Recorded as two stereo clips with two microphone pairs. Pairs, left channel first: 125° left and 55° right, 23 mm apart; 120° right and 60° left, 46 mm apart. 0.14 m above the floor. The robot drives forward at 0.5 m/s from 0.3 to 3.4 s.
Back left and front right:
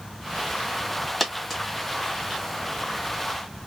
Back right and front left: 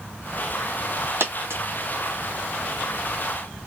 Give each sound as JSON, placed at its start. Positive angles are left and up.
{"t": 1.2, "sound": "a dropped coin", "azimuth_deg": 40, "distance_m": 1.8}